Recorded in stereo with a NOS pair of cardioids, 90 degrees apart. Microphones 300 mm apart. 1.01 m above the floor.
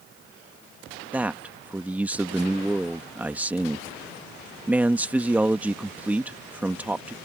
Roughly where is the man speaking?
Ahead.